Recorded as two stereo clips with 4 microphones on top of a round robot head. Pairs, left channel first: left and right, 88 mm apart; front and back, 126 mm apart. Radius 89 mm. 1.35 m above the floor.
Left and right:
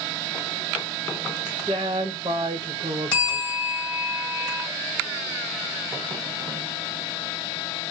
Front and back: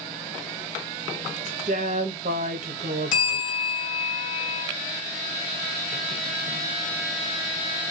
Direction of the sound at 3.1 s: 15° left.